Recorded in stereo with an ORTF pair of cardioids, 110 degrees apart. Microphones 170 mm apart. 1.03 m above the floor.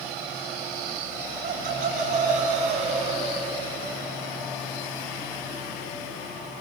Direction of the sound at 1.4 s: 55° right.